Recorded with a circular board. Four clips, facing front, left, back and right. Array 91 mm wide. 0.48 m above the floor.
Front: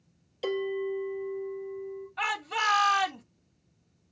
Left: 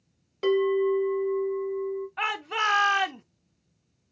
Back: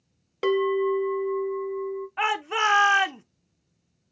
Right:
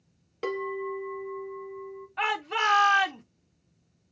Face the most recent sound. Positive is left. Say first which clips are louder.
# right 4 dB, back 5 dB
turn(degrees=175)